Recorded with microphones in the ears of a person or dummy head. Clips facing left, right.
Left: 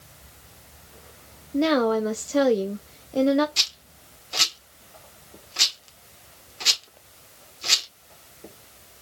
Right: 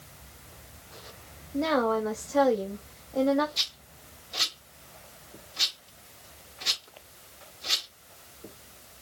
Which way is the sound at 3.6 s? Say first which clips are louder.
Left 4 dB; 75° left (ahead or behind).